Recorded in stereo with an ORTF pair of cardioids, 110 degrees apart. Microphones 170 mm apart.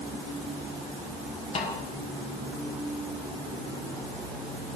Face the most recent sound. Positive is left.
turn(degrees=40)